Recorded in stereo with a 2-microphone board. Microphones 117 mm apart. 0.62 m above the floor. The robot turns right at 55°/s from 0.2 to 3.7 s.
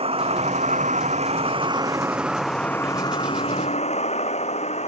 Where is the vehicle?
125° right; by 4.9 s 70° left.